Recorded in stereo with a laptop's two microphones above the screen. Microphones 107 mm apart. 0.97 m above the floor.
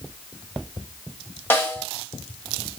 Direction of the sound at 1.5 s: 20° left (ahead or behind).